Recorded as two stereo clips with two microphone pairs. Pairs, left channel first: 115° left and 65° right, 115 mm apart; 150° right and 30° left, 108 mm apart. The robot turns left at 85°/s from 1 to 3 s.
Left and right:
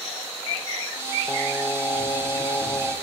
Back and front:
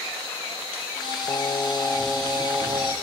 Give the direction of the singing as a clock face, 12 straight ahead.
6 o'clock.